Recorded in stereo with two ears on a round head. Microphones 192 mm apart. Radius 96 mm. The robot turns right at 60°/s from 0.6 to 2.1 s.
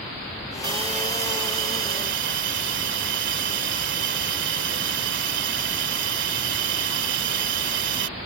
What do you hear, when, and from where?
0.6 s a hiss: 160° right; by 8.1 s 70° right